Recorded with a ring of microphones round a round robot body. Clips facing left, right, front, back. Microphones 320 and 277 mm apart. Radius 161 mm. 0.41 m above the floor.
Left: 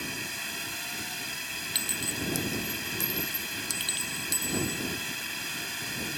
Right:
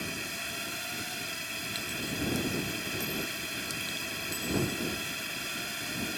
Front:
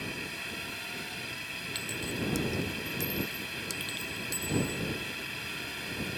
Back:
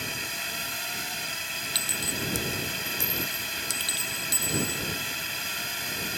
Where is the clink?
145° left.